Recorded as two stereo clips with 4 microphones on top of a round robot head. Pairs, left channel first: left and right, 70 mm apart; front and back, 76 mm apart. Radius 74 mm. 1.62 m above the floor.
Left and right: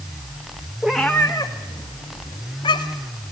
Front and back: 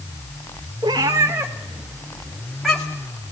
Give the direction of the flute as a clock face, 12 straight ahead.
No flute in this recording.